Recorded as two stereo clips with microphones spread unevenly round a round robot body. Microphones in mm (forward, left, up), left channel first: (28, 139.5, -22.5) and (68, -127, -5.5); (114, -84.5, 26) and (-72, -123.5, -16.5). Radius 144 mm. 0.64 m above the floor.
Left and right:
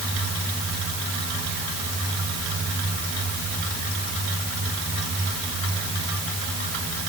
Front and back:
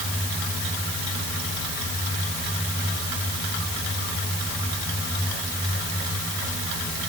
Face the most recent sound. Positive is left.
No sound to turn to.